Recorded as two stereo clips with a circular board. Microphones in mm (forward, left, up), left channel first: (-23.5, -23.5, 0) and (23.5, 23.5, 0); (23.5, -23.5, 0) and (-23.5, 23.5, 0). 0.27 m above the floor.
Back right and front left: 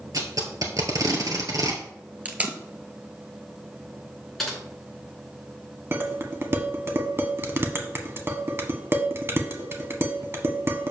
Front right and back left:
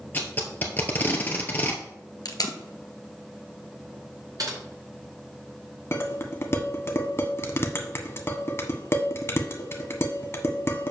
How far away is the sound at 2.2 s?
About 1.4 m.